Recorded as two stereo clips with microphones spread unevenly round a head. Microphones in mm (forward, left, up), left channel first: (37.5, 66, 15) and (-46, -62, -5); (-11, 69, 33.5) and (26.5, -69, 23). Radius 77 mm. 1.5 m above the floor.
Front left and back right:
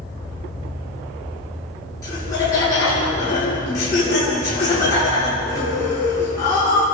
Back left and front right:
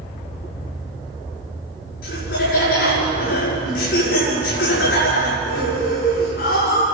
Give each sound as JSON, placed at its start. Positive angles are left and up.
{"t": 2.0, "sound": "laughter", "azimuth_deg": 125, "distance_m": 6.0}